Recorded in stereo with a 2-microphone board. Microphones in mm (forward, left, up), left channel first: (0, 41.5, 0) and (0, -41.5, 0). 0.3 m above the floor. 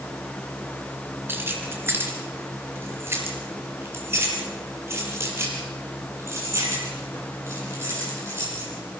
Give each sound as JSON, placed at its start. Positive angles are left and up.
{"t": 1.3, "sound": "keys jangling", "side_deg": -25, "distance_m": 3.0}